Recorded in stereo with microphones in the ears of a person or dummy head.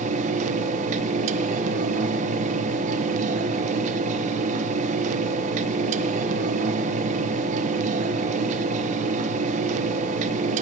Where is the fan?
45° right (ahead or behind), 1.0 m.